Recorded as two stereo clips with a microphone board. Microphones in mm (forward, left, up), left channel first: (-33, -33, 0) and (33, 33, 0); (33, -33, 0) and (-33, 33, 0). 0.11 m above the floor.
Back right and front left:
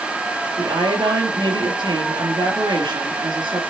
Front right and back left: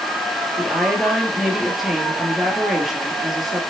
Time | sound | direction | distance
0.6 | a woman speaking | 45° left | 2 m